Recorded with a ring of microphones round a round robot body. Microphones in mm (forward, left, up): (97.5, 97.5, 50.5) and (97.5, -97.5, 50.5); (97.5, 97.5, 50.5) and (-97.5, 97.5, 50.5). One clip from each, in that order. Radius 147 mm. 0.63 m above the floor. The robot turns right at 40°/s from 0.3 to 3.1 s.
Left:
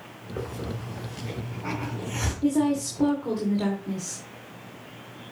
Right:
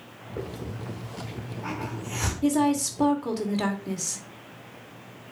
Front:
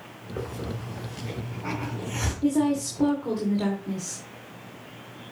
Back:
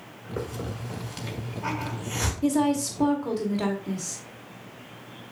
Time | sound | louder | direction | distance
0.4 | a hiss | left 2 dB, back 1 dB | 145° left | 3.5 m
2.4 | a woman speaking | right 1 dB, even | 135° right | 2.0 m